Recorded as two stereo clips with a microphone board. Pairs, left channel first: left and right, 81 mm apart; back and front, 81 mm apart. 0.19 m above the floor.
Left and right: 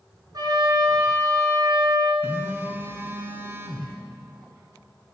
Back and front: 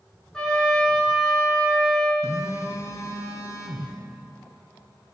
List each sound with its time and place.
0.3 s a trumpet: 100° right, 3 m
2.2 s a phone buzzing: 145° right, 1.2 m